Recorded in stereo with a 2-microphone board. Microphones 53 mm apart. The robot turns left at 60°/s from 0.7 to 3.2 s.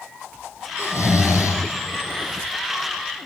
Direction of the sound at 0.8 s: 120° left.